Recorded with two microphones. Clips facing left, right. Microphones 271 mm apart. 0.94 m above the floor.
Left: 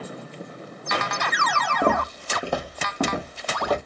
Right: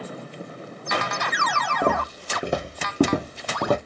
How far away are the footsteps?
About 1.2 m.